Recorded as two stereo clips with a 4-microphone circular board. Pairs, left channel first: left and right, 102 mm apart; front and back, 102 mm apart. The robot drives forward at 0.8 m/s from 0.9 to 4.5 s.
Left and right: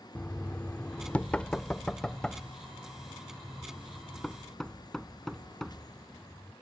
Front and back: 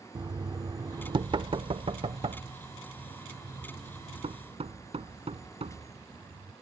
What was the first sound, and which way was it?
Knocking, 155° left.